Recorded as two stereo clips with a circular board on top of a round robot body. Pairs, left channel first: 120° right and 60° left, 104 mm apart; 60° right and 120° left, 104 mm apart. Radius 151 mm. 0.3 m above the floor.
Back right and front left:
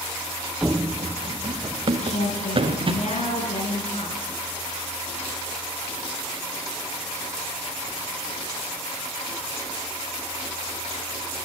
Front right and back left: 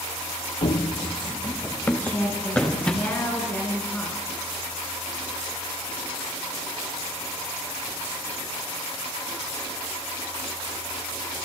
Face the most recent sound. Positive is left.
turn(degrees=-135)